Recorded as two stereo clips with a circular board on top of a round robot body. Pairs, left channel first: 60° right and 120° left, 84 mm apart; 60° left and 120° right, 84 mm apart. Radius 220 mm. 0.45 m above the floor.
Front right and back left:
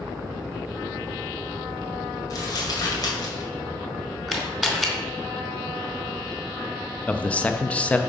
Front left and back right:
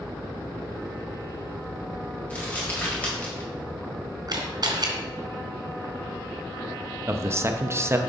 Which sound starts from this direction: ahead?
Crumpling, at 2.3 s.